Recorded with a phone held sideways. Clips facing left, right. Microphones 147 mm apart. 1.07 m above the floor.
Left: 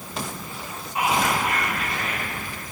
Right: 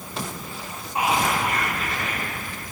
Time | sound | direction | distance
0.9 | whispering | 40° right (ahead or behind) | 3.5 m